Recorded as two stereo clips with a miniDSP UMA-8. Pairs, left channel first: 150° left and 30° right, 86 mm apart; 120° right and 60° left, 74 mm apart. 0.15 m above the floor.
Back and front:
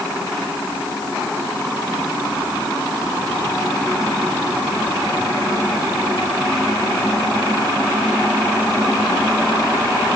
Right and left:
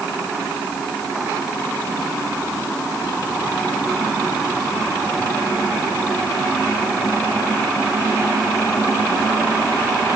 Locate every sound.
Only background noise.